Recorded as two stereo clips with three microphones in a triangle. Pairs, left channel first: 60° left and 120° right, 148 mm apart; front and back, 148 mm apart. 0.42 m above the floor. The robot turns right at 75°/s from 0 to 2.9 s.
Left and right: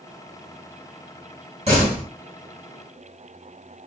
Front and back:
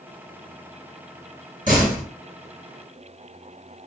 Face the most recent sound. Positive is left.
turn(degrees=-70)